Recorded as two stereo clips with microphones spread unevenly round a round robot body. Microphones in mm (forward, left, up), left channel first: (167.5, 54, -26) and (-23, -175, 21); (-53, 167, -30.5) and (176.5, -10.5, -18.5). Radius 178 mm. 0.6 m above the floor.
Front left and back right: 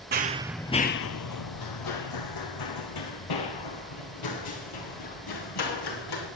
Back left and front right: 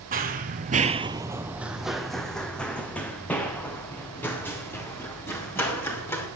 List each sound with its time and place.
0.1 s running footsteps: 90° right, 0.8 m; by 6.3 s 60° left, 5.5 m